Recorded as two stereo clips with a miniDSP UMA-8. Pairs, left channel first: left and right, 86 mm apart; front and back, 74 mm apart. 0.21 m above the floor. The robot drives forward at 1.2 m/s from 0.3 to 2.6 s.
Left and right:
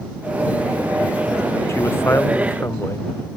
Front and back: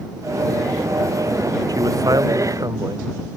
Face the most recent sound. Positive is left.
turn(degrees=150)